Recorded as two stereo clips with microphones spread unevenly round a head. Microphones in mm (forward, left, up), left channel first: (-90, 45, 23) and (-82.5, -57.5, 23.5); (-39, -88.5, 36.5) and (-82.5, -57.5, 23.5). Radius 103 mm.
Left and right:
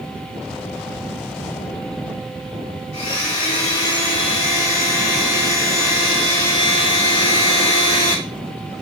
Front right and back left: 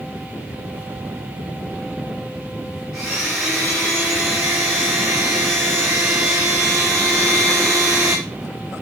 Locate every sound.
2.9 s a blender: 75° left, 1.3 m